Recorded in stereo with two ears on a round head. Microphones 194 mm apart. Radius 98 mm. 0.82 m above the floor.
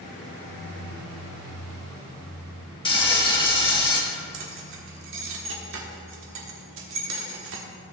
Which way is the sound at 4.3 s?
60° right (ahead or behind).